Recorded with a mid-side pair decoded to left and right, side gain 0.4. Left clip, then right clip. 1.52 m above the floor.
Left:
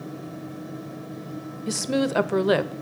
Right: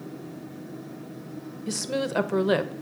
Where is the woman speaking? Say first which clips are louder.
Left 3 dB; 20° left, 0.6 m.